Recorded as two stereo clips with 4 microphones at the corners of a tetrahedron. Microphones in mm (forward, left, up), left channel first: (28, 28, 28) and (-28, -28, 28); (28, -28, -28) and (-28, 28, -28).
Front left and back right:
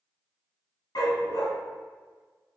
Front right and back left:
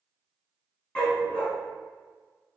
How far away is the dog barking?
About 2.5 m.